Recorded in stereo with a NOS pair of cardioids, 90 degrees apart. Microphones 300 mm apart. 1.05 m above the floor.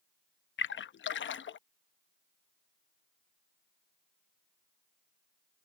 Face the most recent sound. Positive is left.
turn(degrees=40)